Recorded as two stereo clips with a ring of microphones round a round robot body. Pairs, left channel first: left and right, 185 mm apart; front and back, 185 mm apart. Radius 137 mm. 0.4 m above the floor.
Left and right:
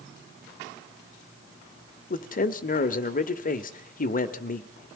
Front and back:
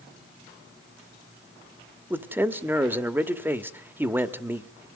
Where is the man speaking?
105° left, 1.3 m.